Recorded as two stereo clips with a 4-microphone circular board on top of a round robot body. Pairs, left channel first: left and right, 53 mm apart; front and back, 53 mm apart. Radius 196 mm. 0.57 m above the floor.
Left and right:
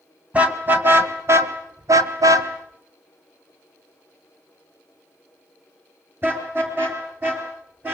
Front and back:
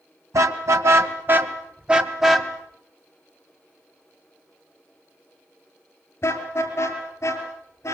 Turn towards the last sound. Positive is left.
turn(degrees=-40)